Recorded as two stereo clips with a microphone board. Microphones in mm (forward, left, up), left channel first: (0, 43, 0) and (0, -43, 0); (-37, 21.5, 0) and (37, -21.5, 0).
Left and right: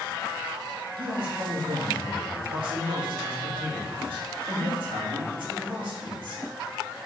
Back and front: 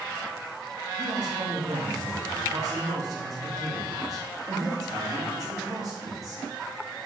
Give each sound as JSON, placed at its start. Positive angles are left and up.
{"t": 1.0, "sound": "a man speaking", "azimuth_deg": -75, "distance_m": 2.5}